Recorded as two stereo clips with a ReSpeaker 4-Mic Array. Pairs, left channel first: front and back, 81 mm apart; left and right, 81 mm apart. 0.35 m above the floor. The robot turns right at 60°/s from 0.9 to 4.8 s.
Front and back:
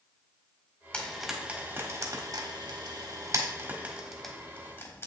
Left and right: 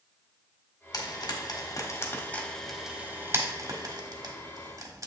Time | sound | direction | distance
0.9 | frying | 70° left | 1.4 m